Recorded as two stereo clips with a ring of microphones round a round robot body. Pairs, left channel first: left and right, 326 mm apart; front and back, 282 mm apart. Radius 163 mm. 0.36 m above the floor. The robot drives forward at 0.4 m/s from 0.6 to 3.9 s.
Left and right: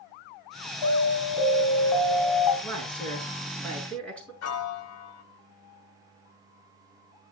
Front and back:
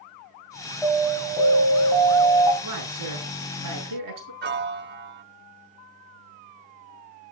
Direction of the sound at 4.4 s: 130° left.